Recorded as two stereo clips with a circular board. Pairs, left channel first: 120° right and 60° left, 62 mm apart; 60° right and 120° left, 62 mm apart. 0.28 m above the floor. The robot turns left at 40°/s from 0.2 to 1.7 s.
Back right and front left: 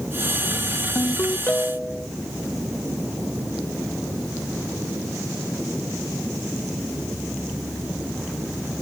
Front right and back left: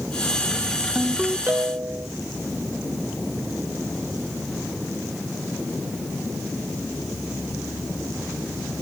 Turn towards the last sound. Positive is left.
turn(degrees=170)